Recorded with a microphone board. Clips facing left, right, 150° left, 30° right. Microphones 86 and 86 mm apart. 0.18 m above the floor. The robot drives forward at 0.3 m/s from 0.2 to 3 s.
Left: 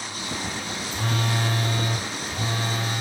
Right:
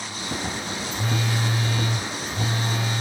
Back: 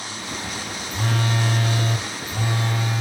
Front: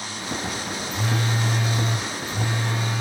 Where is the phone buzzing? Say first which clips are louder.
Left 1 dB, back 2 dB; 115° left, 0.6 m; by 3.0 s 150° left, 1.0 m.